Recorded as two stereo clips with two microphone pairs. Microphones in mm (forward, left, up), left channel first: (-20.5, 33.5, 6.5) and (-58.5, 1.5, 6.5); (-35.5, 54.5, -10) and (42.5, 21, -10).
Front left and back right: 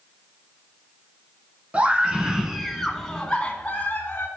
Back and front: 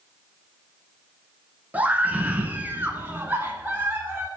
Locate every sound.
1.7 s a scream: 90° right, 1.4 m; by 4.3 s 40° left, 1.4 m